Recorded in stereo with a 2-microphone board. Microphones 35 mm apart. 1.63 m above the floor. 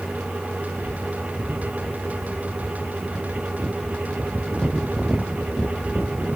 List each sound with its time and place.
Only background noise.